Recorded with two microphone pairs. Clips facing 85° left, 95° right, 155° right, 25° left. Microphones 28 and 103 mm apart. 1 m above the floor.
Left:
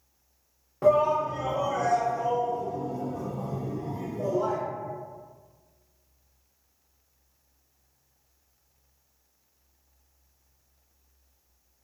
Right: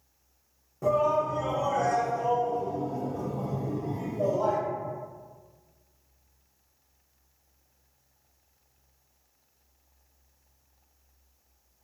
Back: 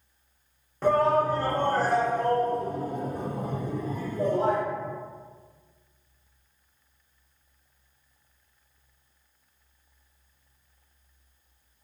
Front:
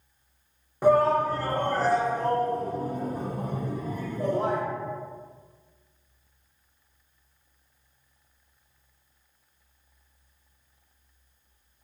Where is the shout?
95° left, 0.5 m; by 4.6 s 160° right, 1.9 m.